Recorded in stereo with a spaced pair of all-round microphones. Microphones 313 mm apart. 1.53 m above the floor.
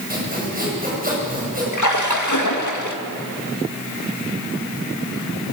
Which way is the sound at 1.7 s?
70° left (ahead or behind).